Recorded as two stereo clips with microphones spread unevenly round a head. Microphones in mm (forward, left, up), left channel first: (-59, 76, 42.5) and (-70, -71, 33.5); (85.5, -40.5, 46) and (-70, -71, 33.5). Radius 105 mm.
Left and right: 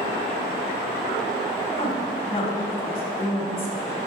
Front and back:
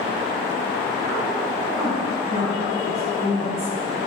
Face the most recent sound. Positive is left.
turn(degrees=135)